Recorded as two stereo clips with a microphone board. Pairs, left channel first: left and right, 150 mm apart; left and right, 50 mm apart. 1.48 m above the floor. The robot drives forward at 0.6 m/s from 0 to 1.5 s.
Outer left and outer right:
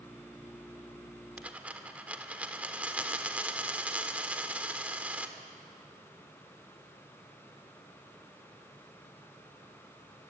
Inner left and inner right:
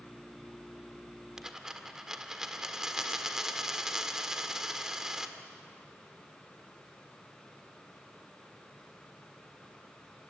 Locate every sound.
1.4 s a dropped coin: 10° right (ahead or behind), 1.5 m